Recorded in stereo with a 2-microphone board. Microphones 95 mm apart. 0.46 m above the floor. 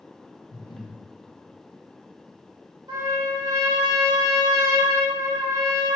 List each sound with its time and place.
0.5 s breathing: 50° left (ahead or behind), 0.8 m
2.9 s a trumpet: 50° right (ahead or behind), 2 m